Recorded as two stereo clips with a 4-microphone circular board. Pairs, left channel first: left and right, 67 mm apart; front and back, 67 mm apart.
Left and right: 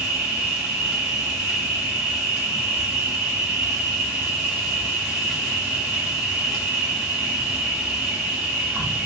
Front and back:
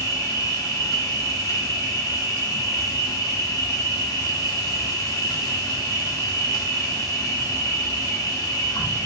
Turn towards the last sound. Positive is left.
turn(degrees=-10)